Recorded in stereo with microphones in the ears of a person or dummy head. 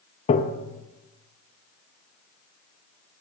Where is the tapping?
30° left (ahead or behind), 0.9 m.